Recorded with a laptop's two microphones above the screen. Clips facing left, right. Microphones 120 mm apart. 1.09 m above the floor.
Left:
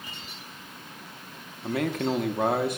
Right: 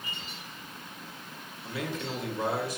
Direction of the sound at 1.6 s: 55° left (ahead or behind).